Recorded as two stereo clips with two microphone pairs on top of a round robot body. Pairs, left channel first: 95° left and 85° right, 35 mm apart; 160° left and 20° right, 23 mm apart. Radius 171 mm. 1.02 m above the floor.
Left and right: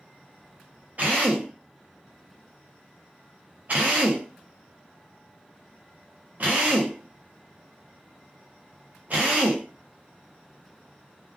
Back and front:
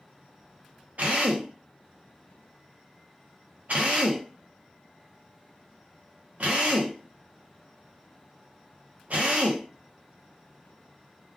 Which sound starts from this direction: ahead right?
A drill, at 1.0 s.